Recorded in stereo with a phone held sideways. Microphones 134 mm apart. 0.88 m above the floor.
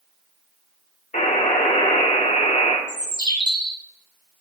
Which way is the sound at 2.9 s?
30° right (ahead or behind).